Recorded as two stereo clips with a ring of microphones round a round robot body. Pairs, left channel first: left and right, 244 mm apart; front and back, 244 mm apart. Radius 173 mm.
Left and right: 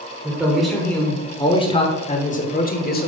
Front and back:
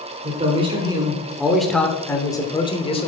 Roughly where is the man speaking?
Behind.